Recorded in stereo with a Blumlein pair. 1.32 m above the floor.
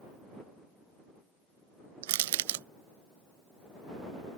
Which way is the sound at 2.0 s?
55° right.